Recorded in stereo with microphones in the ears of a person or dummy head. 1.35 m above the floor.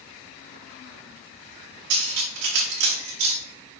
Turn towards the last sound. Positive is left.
turn(degrees=-50)  # may be behind; listen again after turning